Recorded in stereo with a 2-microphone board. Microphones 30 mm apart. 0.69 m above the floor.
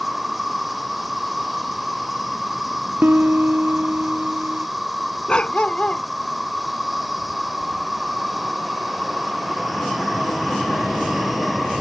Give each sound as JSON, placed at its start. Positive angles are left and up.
{"t": 0.0, "sound": "an insect", "side_deg": -5}
{"t": 3.0, "sound": "a piano", "side_deg": -85}
{"t": 5.3, "sound": "a dog barking", "side_deg": 35}